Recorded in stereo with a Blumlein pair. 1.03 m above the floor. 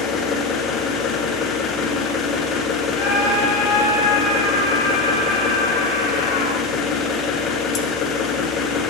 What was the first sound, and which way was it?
An engine running, 30° left.